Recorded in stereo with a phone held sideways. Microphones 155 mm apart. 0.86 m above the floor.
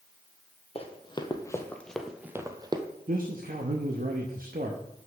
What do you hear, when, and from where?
0.8 s running footsteps: 40° left (ahead or behind), 1.1 m; by 2.8 s 30° right (ahead or behind), 1.0 m
3.1 s a man speaking: 65° right (ahead or behind), 1.0 m